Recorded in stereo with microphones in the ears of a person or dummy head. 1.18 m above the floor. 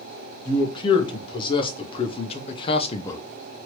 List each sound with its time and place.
0.5 s a man speaking: 25° left (ahead or behind), 1.5 m; by 3.2 s 15° left (ahead or behind), 0.5 m